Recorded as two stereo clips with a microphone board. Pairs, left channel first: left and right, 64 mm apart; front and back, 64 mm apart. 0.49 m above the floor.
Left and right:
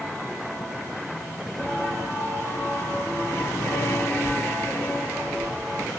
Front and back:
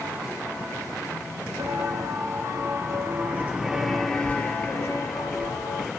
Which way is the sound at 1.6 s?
155° left.